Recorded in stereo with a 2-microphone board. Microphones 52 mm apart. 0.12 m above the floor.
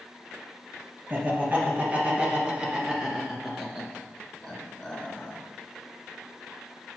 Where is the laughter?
40° right (ahead or behind), 2.5 m; by 5.4 s 20° left (ahead or behind), 1.8 m.